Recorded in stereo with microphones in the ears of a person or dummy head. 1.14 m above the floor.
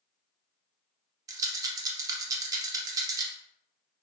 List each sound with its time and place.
1.3 s a rattle: 20° right (ahead or behind), 0.7 m